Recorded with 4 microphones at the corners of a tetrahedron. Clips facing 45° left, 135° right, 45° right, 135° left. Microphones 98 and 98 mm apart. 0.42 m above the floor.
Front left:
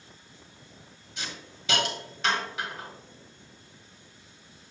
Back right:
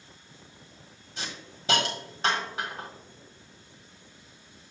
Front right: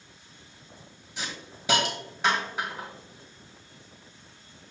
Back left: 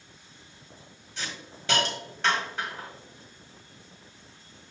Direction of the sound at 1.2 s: 115° right.